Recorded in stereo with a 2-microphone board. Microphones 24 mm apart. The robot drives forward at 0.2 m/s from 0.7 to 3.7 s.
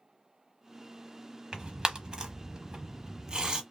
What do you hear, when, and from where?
1.5 s tearing paper: 30° right (ahead or behind), 0.9 m; by 3.6 s 35° right (ahead or behind), 0.8 m